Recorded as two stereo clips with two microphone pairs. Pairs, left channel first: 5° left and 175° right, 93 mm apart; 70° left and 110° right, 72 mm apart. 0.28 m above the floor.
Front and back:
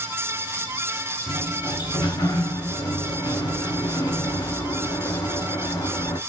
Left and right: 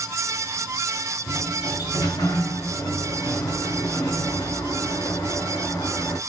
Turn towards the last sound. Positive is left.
turn(degrees=45)